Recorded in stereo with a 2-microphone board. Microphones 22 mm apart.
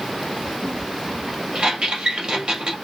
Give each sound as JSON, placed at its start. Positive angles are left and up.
{"t": 1.6, "sound": "a squeak", "side_deg": -50, "distance_m": 2.5}